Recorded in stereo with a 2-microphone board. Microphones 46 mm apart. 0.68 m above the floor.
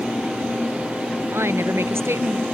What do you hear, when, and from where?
1.3 s a woman speaking: 70° right (ahead or behind)